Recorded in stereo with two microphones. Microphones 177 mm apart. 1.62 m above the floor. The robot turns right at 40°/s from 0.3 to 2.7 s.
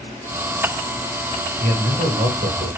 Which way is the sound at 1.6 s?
110° right.